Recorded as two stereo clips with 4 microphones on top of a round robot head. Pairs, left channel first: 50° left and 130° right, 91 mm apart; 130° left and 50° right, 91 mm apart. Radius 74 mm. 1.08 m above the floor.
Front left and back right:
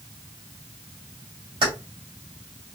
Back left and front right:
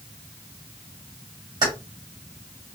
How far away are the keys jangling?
About 1.5 m.